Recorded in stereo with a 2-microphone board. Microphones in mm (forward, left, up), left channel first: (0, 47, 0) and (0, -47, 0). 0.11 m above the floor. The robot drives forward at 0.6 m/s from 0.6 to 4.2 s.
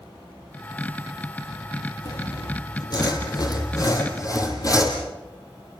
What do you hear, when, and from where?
2.0 s sawing: 50° left (ahead or behind), 3 m; by 5.0 s 40° left (ahead or behind), 3.5 m